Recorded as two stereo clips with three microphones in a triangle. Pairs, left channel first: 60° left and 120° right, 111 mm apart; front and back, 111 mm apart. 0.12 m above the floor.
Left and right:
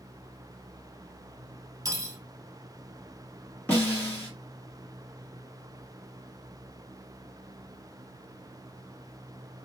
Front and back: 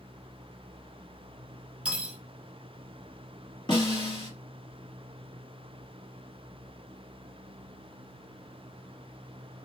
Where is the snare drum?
10° right, 1.8 m.